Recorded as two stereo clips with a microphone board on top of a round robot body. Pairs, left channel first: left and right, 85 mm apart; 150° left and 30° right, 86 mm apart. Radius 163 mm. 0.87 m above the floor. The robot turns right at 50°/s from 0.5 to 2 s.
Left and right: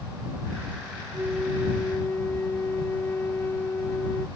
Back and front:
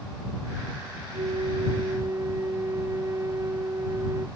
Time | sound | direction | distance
1.1 | a flute | 20° right | ?